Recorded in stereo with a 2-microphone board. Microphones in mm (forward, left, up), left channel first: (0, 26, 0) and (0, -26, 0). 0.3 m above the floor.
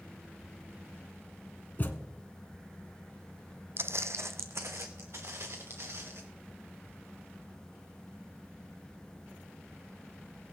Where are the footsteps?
55° right (ahead or behind), 0.6 m; by 6.2 s 60° right (ahead or behind), 3 m.